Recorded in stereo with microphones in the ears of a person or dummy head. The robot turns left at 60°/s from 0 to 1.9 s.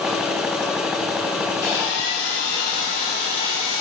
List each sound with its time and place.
1.6 s sawing: 65° left (ahead or behind), 2 m; by 3.8 s 55° left (ahead or behind), 2 m